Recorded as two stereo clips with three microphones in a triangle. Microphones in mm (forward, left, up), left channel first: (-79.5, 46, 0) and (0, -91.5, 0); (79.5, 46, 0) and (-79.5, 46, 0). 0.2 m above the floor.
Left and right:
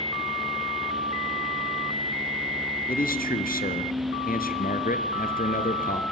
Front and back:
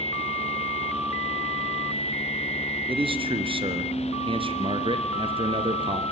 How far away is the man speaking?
About 3.5 m.